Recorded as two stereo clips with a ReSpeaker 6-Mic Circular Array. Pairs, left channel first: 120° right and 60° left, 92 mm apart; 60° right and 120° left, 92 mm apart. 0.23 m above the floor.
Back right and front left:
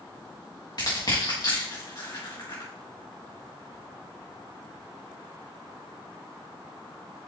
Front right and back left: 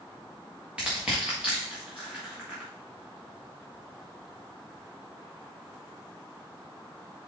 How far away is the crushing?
About 4.5 m.